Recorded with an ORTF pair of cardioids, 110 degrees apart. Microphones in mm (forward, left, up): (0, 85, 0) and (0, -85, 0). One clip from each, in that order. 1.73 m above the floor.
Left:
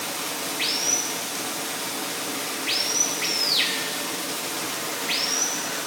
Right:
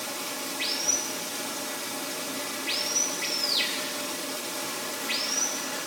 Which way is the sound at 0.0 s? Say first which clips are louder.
Left 4 dB; 40° left.